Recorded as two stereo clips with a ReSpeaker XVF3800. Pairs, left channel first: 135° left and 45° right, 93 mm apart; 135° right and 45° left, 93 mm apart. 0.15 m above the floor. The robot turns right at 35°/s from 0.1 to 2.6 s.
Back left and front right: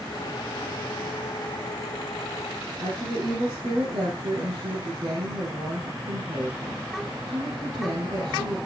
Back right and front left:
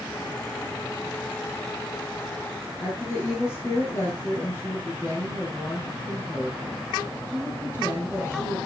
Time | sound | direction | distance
2.8 | a woman speaking | 75° right | 6 m